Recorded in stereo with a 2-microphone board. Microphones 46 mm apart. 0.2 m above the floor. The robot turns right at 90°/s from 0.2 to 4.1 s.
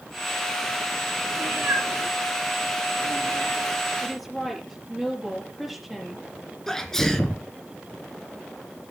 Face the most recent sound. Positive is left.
turn(degrees=10)  # may be behind; listen again after turning